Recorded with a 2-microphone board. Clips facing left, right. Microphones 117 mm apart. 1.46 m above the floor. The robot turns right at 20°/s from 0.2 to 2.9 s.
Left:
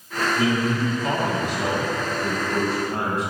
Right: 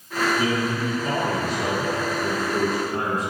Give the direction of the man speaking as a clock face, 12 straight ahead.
10 o'clock.